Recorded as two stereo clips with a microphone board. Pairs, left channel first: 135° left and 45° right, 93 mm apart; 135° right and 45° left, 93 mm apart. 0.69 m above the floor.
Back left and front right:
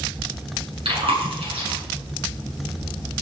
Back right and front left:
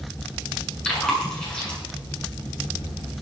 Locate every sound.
0.8 s chewing: 55° right, 6.5 m